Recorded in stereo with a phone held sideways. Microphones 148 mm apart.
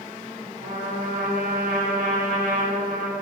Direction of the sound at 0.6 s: 75° right (ahead or behind).